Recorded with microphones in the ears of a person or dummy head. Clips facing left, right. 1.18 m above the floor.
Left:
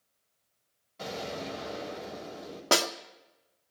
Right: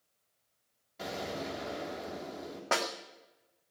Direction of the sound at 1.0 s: 10° right (ahead or behind).